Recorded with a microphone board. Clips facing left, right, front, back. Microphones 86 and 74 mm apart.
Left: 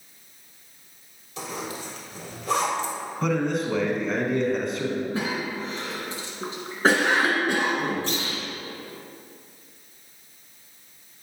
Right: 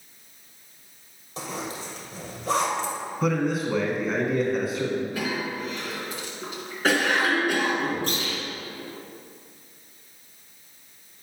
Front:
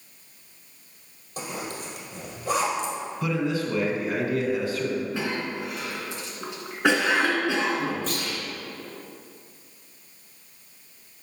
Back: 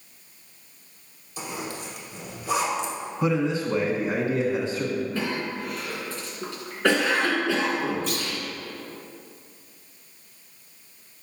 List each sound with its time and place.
1.4 s a zipper: 35° right, 2 m
3.2 s a man speaking: 170° right, 1.1 m
5.1 s a cough: 60° left, 1.8 m
8.1 s a clunk: 45° right, 2 m